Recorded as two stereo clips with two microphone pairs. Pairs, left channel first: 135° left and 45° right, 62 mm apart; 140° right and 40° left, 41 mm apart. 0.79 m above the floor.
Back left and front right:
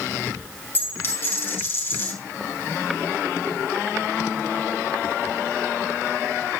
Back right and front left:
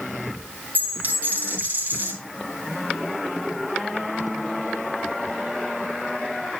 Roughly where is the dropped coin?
Left.